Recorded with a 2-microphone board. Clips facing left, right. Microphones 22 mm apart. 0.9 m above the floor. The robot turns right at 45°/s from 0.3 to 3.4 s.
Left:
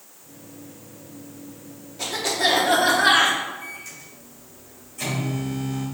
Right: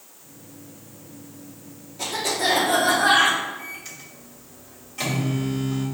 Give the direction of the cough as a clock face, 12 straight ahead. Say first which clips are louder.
Left 1 dB; 12 o'clock.